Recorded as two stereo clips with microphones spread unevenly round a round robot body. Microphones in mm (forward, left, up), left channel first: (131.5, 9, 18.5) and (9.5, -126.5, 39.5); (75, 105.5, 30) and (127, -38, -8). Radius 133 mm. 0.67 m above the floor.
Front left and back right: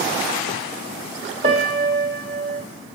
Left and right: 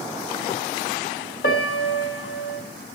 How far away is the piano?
About 0.6 m.